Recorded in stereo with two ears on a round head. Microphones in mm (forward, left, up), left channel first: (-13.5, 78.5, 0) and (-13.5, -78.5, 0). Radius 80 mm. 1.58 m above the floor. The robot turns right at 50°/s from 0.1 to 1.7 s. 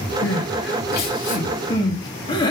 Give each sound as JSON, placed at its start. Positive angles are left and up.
{"t": 0.2, "sound": "crying", "side_deg": 80, "distance_m": 3.5}